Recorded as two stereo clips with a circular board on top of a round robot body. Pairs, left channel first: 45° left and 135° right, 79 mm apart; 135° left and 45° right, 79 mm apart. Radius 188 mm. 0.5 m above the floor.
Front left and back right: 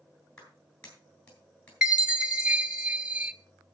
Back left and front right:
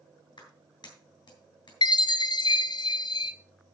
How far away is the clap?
About 8 m.